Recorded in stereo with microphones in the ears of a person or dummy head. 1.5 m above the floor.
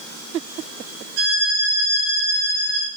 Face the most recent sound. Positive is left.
turn(degrees=-65)  # may be behind; listen again after turning